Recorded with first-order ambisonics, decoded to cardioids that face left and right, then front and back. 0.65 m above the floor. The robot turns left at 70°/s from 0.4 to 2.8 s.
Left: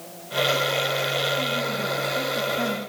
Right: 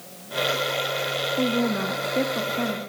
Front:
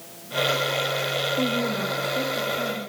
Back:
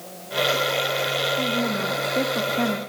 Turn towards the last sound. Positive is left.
turn(degrees=-170)